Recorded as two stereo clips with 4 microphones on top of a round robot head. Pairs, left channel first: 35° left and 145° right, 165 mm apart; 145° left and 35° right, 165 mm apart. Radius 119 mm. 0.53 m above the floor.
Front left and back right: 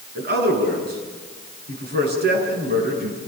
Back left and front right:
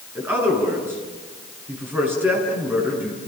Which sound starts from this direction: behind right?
A man speaking, at 0.1 s.